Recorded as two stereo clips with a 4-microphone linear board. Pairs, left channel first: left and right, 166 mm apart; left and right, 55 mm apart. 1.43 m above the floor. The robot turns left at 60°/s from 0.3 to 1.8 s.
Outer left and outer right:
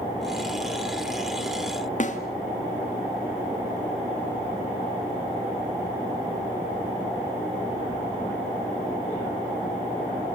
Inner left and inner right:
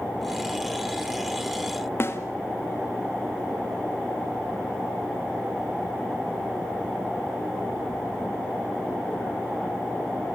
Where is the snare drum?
50° left (ahead or behind), 1.8 m.